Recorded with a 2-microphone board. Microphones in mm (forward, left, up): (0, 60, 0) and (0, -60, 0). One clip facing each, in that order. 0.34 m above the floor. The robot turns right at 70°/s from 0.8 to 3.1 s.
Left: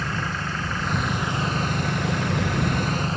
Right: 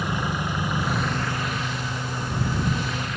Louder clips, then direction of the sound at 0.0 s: Right 2 dB; 15° right.